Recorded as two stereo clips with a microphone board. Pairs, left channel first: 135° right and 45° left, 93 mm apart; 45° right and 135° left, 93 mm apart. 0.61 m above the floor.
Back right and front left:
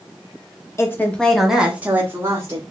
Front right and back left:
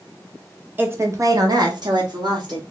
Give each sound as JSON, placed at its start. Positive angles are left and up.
{"t": 0.8, "sound": "a woman speaking", "azimuth_deg": -170, "distance_m": 0.8}